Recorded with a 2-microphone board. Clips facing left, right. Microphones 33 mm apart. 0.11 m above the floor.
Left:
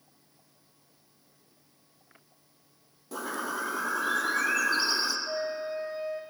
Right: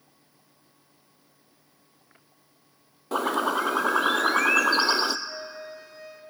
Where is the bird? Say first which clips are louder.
Right 9 dB; 60° right (ahead or behind), 0.6 m.